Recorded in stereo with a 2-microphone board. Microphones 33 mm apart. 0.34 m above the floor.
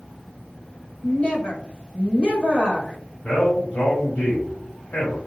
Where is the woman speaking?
40° left (ahead or behind), 1.8 m.